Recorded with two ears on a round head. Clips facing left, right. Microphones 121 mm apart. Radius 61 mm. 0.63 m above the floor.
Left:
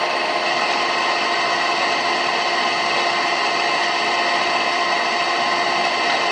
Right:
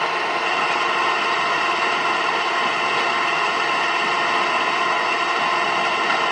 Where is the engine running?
40° left (ahead or behind), 0.9 m.